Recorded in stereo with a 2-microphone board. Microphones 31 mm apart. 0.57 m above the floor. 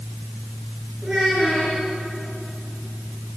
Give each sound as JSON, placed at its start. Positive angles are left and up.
{"t": 1.0, "sound": "a child speaking", "side_deg": -25, "distance_m": 6.0}